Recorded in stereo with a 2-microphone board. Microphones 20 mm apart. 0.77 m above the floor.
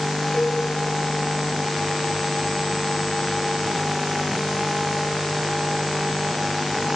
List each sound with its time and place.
0.3 s a cowbell: 35° left (ahead or behind), 7 m